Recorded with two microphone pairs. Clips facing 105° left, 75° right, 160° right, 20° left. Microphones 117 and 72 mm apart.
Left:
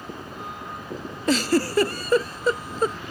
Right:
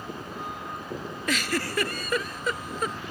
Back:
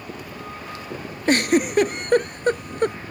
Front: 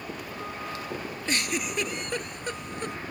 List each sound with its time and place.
1.3 s a giggle: 165° left